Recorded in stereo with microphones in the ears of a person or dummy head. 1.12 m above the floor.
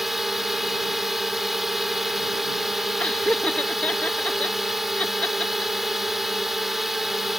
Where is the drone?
Centre (ahead or behind).